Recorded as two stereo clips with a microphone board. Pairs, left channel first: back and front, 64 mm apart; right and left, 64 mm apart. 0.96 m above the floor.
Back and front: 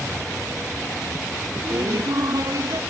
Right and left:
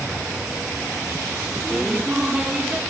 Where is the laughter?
10° left; by 2.8 s 15° left.